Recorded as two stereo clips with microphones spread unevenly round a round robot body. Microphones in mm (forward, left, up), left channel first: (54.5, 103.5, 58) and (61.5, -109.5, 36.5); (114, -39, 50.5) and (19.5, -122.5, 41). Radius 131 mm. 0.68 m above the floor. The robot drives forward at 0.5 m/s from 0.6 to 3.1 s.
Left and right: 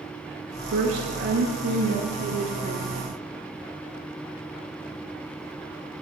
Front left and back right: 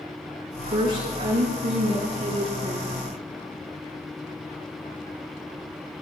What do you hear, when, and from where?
0.7 s a woman speaking: 125° right, 7 m; by 3.1 s 130° right, 8 m